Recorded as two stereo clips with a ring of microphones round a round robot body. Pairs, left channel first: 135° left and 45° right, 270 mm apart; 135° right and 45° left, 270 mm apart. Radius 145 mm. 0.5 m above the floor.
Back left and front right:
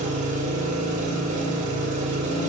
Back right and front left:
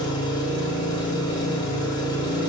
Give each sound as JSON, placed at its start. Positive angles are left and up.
{"t": 0.0, "sound": "an engine running", "azimuth_deg": -75, "distance_m": 0.8}